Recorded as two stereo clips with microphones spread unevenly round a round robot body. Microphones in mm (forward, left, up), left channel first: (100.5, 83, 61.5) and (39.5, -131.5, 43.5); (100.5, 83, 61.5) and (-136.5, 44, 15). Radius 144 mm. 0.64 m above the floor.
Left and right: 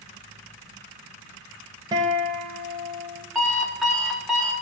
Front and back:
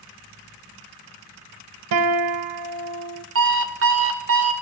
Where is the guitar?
175° left, 0.9 m.